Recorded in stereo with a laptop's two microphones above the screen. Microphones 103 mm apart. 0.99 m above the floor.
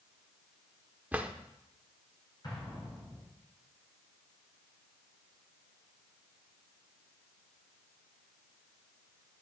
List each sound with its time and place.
1.1 s a drawer: 15° right (ahead or behind), 0.6 m
2.4 s an explosion: 45° left (ahead or behind), 4 m